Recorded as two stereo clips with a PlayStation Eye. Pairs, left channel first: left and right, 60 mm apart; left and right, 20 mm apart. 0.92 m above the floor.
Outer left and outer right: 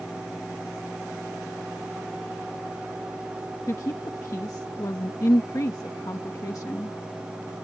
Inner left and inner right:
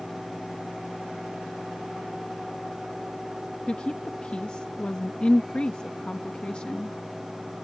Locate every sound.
3.7 s a woman speaking: 65° left (ahead or behind)